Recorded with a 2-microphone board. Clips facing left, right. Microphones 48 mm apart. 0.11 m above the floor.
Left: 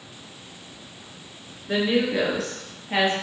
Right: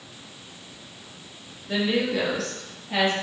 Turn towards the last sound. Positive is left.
turn(degrees=25)  # may be behind; listen again after turning